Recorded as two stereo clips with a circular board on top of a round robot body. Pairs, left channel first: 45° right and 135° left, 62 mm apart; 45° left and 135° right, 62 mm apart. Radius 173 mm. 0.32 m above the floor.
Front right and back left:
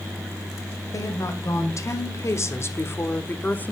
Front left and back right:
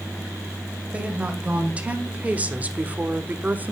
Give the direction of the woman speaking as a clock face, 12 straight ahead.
2 o'clock.